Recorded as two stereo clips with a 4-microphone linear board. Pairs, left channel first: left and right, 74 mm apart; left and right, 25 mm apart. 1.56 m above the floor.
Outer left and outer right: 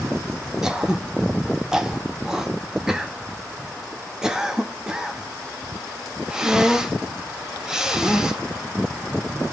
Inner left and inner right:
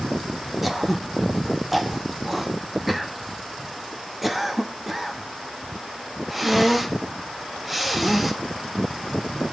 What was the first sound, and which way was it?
Throat clearing, 5° right (ahead or behind).